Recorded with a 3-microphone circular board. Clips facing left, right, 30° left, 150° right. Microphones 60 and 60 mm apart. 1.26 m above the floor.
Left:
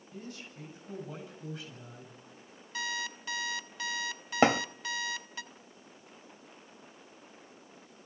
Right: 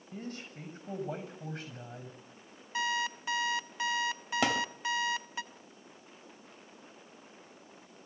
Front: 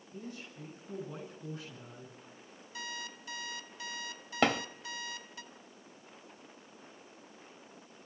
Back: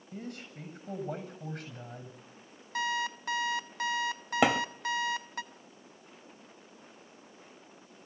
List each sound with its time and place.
0.1 s a man speaking: 125° right, 7 m
2.8 s an alarm clock: 155° right, 0.8 m
4.4 s a thud: 130° left, 1.1 m